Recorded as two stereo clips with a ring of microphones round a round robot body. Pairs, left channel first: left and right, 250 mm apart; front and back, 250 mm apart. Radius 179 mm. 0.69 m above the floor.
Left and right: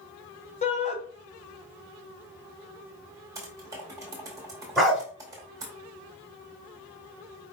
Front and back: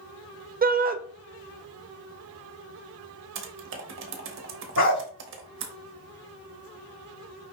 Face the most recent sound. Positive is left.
turn(degrees=0)